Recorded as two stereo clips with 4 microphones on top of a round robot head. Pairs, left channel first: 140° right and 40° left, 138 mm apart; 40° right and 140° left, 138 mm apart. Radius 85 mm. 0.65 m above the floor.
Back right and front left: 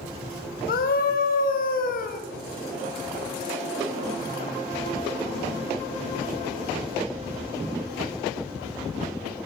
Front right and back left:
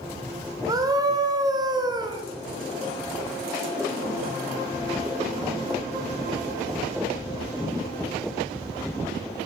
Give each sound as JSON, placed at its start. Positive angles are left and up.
{"t": 0.7, "sound": "a scream", "azimuth_deg": -155, "distance_m": 4.5}